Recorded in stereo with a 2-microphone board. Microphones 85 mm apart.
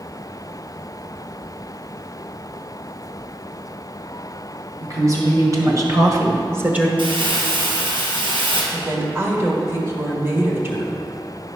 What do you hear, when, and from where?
4.8 s a woman speaking: 40° right (ahead or behind), 3 m; by 6.9 s 10° right (ahead or behind), 0.9 m
7.0 s crumpling: 80° right, 2 m
8.7 s a woman speaking: 30° right (ahead or behind), 1.8 m